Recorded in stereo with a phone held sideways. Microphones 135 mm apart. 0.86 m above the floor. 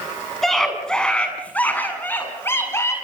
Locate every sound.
0.4 s a scream: centre (ahead or behind), 6.5 m; by 2.9 s 20° left (ahead or behind), 7.5 m